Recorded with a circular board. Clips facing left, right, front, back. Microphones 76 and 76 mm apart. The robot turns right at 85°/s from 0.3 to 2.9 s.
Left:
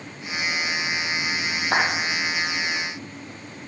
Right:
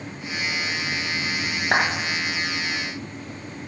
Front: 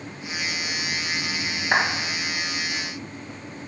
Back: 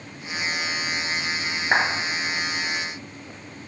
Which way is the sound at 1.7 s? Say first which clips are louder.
Right 1 dB, even; 105° right.